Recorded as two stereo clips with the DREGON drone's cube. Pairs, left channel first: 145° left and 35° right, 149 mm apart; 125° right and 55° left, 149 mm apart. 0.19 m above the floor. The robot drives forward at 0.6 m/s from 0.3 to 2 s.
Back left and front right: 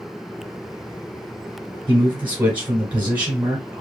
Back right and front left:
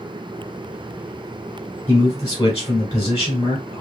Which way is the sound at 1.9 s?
85° right.